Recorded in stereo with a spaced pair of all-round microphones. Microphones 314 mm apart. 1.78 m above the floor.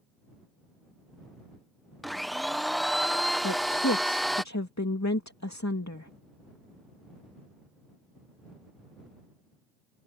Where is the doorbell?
I don't hear a doorbell.